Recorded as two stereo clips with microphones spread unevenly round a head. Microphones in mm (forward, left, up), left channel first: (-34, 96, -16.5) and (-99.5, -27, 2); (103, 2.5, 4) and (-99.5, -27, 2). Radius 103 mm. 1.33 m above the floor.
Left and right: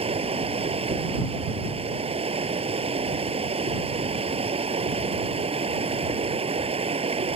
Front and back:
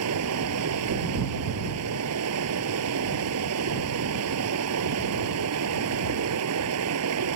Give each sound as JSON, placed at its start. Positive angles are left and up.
{"t": 0.0, "sound": "running water", "azimuth_deg": -160}